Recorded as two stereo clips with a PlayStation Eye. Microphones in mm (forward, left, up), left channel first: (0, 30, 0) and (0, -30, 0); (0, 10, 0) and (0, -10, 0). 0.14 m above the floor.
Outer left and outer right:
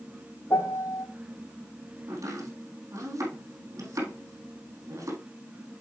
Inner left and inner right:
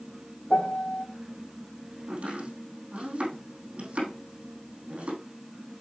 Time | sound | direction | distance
0.5 | a piano | 50° left (ahead or behind) | 1.6 m
2.1 | chopping | 65° right (ahead or behind) | 3.5 m